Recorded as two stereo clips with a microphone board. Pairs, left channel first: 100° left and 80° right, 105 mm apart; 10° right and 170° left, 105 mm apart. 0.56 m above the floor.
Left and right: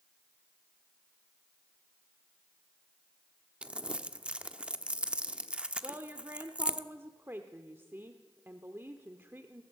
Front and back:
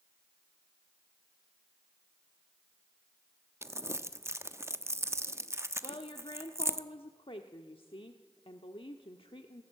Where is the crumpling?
150° right, 0.9 m.